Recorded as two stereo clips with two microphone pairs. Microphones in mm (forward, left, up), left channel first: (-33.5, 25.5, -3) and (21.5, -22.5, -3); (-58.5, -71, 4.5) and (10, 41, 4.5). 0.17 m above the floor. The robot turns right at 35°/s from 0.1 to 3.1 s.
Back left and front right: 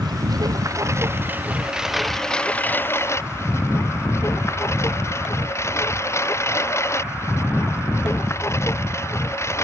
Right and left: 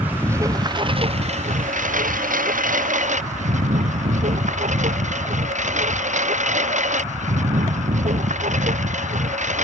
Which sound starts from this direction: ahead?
A lawn mower, at 0.0 s.